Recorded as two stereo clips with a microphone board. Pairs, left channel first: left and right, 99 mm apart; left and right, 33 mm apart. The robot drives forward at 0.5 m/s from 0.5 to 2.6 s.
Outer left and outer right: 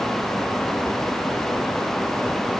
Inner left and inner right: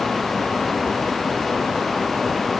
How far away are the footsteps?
No footsteps in this recording.